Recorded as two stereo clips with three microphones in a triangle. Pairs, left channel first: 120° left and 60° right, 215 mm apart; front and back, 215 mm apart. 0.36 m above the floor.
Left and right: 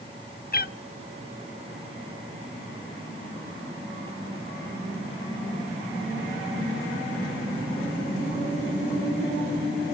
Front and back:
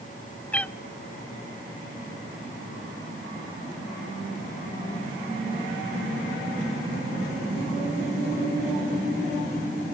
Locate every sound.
0.5 s a cat meowing: 80° left, 0.6 m